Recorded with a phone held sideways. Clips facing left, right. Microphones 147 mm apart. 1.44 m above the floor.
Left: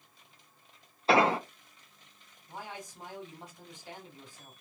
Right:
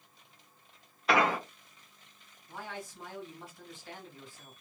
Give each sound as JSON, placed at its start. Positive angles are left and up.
{"t": 1.1, "sound": "an explosion", "side_deg": 30, "distance_m": 0.5}
{"t": 2.5, "sound": "a man speaking", "side_deg": 20, "distance_m": 1.7}